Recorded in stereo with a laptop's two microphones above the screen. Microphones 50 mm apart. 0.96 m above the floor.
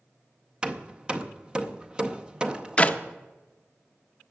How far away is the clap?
About 0.5 m.